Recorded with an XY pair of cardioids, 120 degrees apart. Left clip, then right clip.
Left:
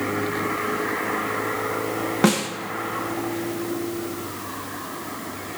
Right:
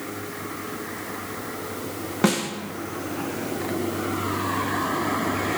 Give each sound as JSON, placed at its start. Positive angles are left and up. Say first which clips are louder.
{"t": 2.2, "sound": "a snare drum", "louder": "left 1 dB", "azimuth_deg": 10, "distance_m": 1.0}